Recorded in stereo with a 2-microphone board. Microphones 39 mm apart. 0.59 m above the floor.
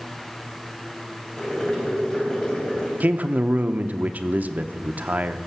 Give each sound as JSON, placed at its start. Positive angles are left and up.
{"t": 1.4, "sound": "boiling", "side_deg": 20, "distance_m": 3.5}
{"t": 3.0, "sound": "a man speaking", "side_deg": -45, "distance_m": 0.7}